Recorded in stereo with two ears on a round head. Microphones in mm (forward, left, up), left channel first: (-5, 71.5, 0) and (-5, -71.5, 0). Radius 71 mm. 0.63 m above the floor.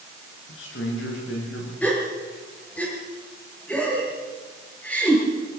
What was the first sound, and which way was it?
A man speaking, 85° left.